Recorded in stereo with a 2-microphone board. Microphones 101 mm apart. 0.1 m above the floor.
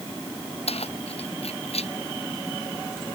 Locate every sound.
0.7 s keys jangling: 80° left; by 1.9 s 85° left